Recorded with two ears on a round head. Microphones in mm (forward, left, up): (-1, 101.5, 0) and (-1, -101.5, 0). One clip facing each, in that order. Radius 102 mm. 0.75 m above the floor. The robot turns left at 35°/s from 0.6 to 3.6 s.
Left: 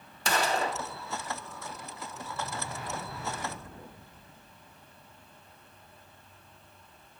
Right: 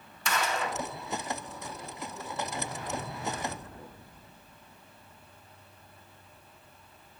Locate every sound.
0.2 s a gunshot: 30° left (ahead or behind), 0.5 m; by 0.8 s 20° left (ahead or behind), 0.5 m